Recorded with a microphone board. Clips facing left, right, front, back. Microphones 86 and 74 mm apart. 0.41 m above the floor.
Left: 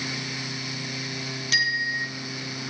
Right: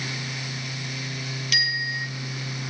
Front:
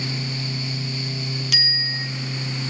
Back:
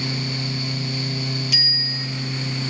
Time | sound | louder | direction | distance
1.5 | a bicycle bell | left 2 dB, front 2 dB | 30° left | 2.5 m